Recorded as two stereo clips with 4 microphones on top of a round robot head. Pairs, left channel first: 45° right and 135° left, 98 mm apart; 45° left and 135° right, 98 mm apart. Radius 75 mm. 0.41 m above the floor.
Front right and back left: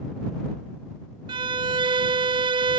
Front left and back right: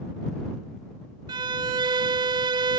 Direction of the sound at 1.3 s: 175° left.